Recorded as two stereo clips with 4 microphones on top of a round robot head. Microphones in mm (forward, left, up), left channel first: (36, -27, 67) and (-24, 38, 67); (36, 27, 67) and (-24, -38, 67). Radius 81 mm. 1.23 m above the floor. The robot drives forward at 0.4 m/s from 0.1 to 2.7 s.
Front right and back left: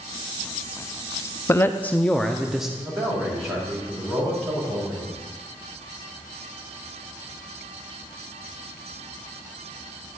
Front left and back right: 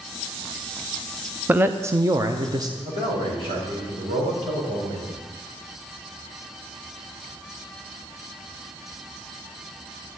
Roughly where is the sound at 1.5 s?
Right.